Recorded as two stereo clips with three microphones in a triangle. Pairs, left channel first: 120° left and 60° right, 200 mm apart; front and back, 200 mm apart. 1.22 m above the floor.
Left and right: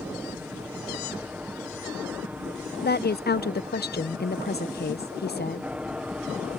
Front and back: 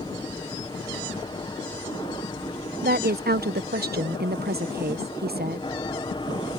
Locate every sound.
0.0 s an aircraft: 10° left; by 6.6 s 20° left
2.8 s a woman speaking: 150° left